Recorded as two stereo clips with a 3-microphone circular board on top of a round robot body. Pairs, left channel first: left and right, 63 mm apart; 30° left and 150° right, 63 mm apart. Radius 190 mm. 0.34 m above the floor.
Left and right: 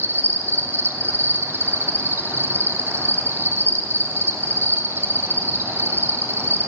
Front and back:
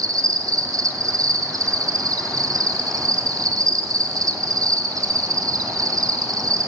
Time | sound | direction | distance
0.0 | an insect | 140° right | 0.7 m